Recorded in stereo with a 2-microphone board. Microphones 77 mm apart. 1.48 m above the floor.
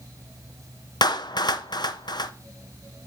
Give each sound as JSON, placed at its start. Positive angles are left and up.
{"t": 1.0, "sound": "a clap", "side_deg": 70, "distance_m": 0.7}